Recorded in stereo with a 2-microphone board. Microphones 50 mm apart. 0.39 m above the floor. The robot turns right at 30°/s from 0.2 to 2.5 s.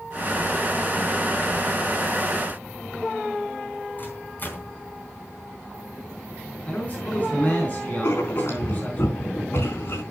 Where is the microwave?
40° left (ahead or behind), 3 m.